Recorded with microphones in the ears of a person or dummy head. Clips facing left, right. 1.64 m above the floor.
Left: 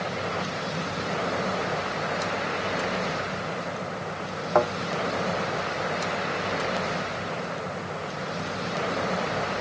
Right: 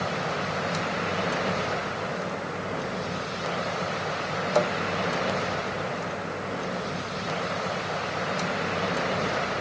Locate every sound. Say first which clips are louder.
4.5 s a thud: left 2 dB; 60° left (ahead or behind), 1.9 m